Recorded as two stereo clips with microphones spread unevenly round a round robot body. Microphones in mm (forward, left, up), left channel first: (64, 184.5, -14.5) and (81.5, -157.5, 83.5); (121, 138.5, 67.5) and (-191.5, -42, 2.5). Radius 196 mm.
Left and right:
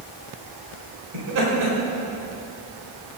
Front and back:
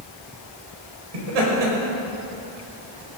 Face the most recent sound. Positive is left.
turn(degrees=-130)